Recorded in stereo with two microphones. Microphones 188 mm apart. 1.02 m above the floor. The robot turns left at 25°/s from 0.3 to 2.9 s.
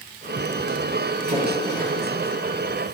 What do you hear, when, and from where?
1.3 s a splash: 55° right (ahead or behind), 3.5 m; by 1.9 s 40° right (ahead or behind), 3.5 m